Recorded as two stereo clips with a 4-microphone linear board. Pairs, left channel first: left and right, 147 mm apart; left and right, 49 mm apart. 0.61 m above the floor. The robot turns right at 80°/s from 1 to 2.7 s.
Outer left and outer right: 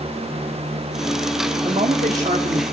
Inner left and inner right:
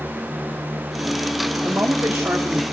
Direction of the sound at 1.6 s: 125° right.